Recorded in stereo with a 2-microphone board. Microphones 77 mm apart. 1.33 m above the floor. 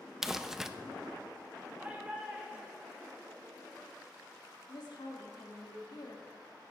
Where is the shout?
15° right (ahead or behind), 5 m.